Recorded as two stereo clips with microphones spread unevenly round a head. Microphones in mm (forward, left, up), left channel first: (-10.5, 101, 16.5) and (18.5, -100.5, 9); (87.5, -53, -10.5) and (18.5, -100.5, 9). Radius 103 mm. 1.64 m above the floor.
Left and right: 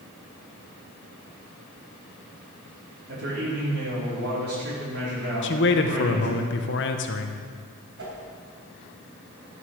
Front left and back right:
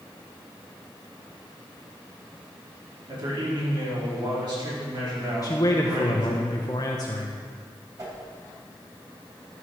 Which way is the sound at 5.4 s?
100° left.